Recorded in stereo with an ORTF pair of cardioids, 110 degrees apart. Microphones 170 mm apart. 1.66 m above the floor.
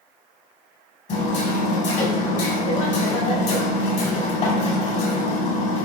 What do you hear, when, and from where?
1.1 s hammering: 50° left, 4.5 m